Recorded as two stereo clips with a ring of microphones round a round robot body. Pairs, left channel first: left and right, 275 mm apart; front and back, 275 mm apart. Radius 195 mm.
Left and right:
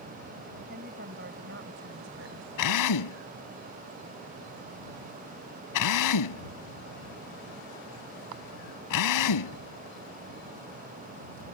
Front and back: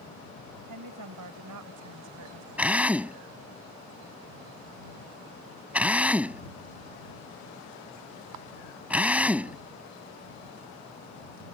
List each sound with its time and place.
0.7 s a woman speaking: 155° right; by 2.5 s 140° right
2.6 s a drill: 95° left